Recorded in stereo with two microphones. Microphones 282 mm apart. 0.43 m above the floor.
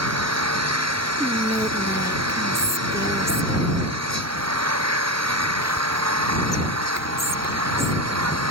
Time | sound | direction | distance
0.0 | an engine running | 75° right (ahead or behind) | ?
1.2 | whispering | 10° right (ahead or behind) | ?